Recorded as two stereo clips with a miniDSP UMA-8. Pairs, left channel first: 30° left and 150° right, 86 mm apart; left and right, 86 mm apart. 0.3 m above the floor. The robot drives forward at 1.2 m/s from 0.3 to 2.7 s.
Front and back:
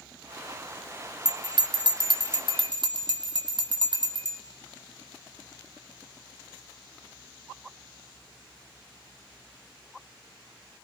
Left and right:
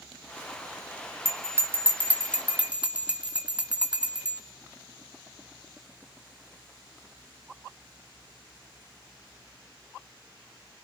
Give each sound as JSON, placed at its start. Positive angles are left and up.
{"t": 1.2, "sound": "a bell", "azimuth_deg": -140, "distance_m": 1.6}